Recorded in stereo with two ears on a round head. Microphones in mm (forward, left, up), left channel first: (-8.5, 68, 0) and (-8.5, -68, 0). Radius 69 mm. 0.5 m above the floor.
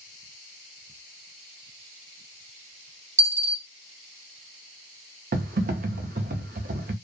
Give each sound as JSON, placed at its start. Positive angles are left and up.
{"t": 3.2, "sound": "a dropped coin", "side_deg": -20, "distance_m": 0.6}
{"t": 5.3, "sound": "typing on a keyboard", "side_deg": -55, "distance_m": 0.6}